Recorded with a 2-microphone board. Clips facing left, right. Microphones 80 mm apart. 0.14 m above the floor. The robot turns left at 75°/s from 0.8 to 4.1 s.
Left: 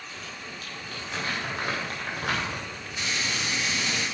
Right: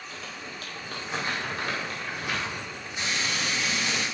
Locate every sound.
0.1 s crumpling: 45° right (ahead or behind), 5.5 m; by 4.0 s 15° right (ahead or behind), 5.5 m
3.0 s frying: 25° right, 6 m; by 4.0 s 105° right, 6 m